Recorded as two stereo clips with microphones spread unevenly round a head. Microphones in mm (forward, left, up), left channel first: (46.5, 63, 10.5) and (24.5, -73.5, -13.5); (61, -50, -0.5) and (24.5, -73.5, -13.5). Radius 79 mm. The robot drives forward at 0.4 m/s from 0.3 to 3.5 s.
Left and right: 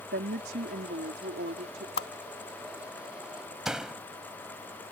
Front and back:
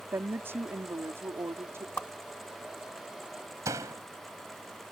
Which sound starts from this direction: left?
A whoosh, at 2.0 s.